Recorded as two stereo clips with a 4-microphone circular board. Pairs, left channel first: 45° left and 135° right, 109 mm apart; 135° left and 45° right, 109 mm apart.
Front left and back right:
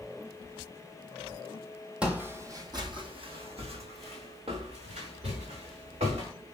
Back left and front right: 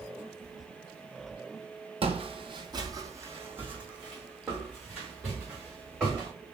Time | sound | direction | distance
2.0 | footsteps | 55° right | 0.8 m